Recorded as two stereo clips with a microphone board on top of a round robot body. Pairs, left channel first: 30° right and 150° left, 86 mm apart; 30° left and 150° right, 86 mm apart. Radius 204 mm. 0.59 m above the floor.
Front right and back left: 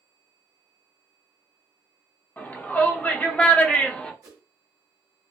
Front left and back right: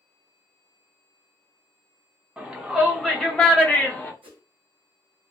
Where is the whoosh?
160° right, 0.9 m.